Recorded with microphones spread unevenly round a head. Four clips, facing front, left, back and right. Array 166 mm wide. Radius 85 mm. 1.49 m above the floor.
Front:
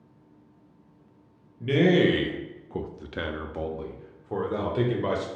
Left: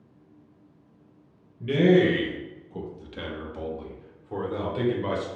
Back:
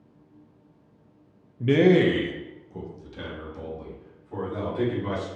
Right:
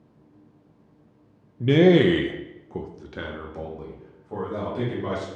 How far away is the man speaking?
About 0.6 m.